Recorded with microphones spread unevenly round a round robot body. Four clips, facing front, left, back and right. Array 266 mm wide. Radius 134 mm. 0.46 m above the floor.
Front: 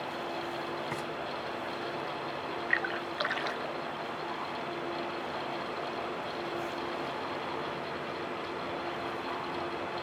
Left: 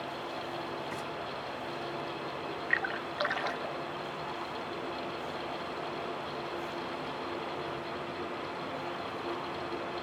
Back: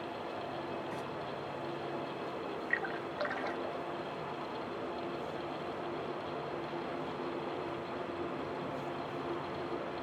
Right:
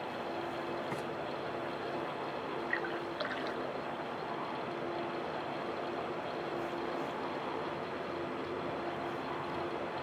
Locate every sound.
0.9 s frying: 10° right, 1.6 m
2.7 s a splash: 90° left, 0.6 m